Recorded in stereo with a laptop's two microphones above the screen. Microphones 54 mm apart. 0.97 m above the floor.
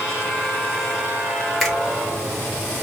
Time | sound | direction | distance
1.6 | a finger snap | 5° left (ahead or behind) | 0.8 m